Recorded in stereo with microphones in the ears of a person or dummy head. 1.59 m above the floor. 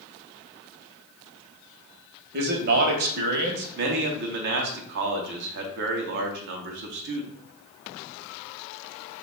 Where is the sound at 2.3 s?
50° right (ahead or behind), 0.9 m.